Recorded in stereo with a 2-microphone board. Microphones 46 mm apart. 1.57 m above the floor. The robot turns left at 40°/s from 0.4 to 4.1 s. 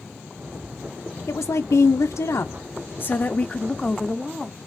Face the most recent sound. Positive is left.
turn(degrees=-5)